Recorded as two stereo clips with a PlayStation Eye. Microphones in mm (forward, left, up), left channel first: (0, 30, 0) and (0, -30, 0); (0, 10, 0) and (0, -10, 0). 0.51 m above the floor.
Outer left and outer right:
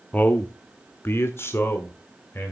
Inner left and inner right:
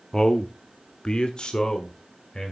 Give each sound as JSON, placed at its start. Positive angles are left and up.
{"t": 0.1, "sound": "a man speaking", "side_deg": 25, "distance_m": 0.8}